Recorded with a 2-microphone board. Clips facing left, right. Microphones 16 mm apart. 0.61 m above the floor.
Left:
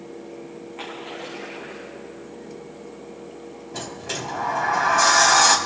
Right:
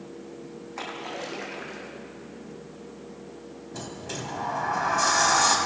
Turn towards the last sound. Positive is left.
turn(degrees=30)  # may be behind; listen again after turning